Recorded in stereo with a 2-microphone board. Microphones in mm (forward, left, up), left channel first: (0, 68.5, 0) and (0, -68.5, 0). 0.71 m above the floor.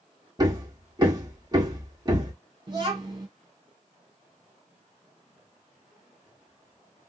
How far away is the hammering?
About 1.6 m.